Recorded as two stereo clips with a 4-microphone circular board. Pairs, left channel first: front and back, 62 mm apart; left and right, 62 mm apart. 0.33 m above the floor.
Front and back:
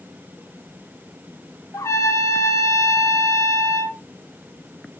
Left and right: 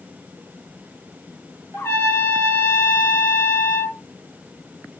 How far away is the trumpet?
About 1.5 m.